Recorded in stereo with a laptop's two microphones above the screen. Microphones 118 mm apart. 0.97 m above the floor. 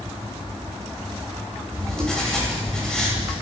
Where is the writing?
5° left (ahead or behind), 2.5 m.